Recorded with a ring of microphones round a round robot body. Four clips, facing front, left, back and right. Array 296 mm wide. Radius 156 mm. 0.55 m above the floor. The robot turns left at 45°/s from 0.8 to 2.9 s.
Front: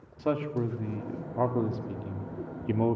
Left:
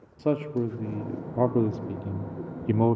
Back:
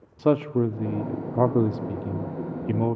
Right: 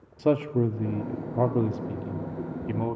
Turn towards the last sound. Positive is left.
turn(degrees=95)